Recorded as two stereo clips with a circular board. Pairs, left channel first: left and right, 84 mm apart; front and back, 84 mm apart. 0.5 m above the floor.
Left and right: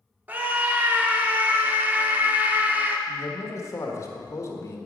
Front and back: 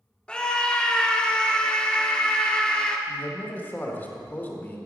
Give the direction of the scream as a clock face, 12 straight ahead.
2 o'clock.